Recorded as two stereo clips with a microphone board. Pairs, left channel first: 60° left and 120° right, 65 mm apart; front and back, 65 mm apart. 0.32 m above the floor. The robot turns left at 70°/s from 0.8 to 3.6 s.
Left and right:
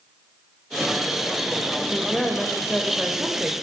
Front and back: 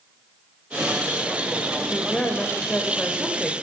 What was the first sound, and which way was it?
A woman speaking, 30° left.